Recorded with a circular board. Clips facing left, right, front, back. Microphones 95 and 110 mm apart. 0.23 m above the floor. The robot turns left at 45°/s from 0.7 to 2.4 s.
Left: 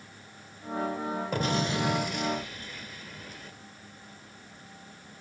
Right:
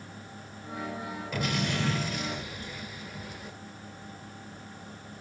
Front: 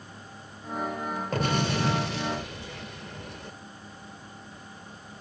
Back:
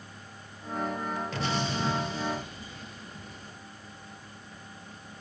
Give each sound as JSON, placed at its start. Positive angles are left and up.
{"t": 1.3, "sound": "an explosion", "azimuth_deg": 40, "distance_m": 2.0}